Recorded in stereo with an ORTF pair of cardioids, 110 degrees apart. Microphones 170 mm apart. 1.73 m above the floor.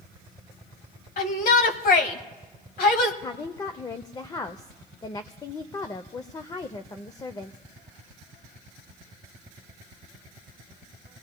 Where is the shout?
60° left, 1.8 m.